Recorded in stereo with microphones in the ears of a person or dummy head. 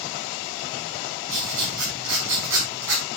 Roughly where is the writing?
Right.